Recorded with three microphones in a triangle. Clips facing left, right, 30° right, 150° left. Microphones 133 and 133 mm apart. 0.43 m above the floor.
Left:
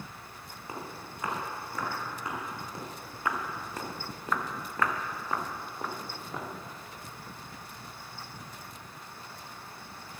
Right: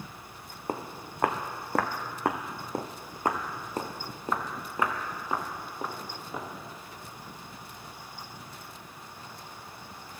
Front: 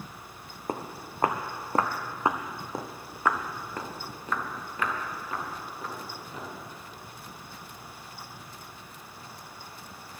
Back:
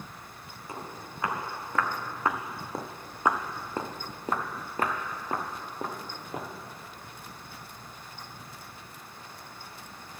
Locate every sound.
0.7 s footsteps: 55° right, 1.3 m; by 6.5 s 175° right, 2.5 m